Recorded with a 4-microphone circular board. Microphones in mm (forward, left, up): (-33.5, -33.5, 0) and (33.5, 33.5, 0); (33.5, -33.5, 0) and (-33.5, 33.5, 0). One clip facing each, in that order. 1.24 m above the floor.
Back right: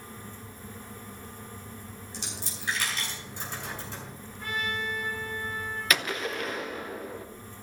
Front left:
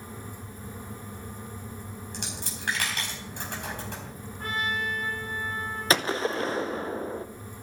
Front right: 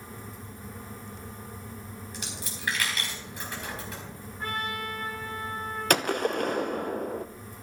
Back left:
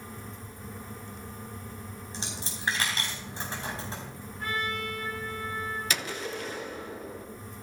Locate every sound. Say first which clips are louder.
2.1 s a dropped coin: front left 1 dB, back left 3 dB; 75° left, 4.5 m
4.4 s a trumpet: front left 2 dB, even; 10° left, 5 m
5.9 s a gunshot: front left 5 dB, front right 9 dB; 15° right, 0.7 m